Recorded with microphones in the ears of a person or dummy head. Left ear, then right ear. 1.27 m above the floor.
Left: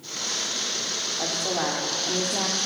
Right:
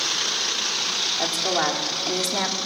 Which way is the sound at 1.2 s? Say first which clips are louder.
Right 2 dB; 75° right (ahead or behind).